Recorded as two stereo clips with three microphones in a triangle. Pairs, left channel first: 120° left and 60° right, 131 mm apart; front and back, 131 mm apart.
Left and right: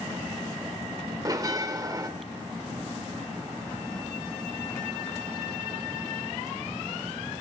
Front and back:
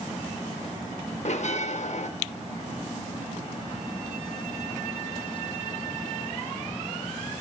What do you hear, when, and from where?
1.2 s a bell: 5° right, 0.7 m